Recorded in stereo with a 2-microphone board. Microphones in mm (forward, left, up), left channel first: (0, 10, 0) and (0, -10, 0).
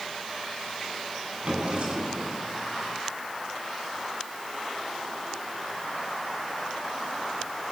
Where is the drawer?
50° right (ahead or behind), 5 m.